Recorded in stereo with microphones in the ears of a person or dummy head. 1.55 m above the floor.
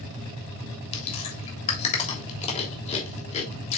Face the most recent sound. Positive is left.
turn(degrees=35)  # may be behind; listen again after turning